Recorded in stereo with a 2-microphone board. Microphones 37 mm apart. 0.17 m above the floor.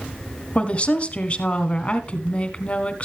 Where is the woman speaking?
35° left (ahead or behind), 1.3 m.